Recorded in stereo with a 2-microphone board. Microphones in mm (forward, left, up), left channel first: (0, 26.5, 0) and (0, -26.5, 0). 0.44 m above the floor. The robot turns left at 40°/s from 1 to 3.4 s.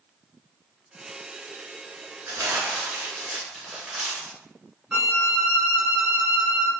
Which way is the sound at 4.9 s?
20° right (ahead or behind).